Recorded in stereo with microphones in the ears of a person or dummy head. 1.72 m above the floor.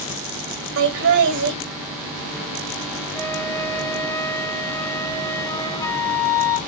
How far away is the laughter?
About 2 m.